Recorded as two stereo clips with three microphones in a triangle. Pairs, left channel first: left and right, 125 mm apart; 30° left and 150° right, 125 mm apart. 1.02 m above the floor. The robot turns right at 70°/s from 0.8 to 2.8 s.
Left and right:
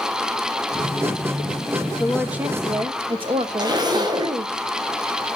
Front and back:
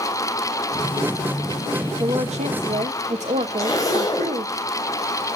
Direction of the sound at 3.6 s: 35° right.